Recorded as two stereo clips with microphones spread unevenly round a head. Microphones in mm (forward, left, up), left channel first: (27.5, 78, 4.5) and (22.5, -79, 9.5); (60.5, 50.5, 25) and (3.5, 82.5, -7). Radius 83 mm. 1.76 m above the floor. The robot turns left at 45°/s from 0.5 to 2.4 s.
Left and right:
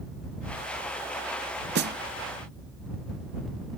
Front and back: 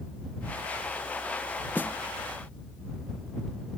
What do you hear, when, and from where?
1.8 s a snare drum: 85° right; by 2.0 s 95° right